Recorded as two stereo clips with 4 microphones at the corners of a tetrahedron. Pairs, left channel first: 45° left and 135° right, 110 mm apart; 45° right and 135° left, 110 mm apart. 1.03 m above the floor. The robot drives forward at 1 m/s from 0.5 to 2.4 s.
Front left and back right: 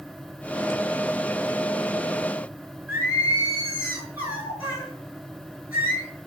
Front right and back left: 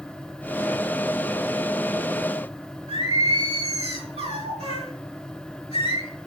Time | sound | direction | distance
2.9 | singing | 155° left | 6.5 m